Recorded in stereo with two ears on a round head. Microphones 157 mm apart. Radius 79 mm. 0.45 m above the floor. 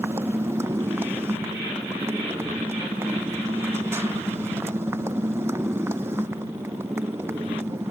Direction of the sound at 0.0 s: 15° right (ahead or behind).